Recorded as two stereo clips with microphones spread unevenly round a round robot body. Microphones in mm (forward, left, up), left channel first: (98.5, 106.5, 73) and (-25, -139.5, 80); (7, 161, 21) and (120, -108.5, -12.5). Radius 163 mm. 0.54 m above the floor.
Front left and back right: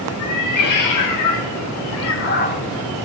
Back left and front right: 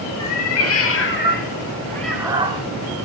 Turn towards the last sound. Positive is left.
turn(degrees=0)